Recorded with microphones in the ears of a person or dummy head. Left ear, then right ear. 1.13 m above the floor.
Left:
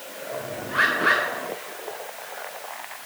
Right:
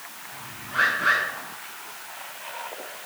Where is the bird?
30° left (ahead or behind), 5 m.